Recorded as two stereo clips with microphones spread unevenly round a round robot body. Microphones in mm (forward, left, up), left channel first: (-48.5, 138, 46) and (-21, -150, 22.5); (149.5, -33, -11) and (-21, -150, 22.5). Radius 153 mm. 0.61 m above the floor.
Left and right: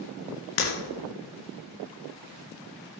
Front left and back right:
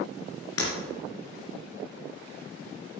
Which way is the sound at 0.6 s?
75° left.